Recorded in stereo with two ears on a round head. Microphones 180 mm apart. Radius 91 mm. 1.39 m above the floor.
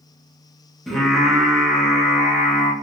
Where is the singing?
Centre (ahead or behind), 0.6 m.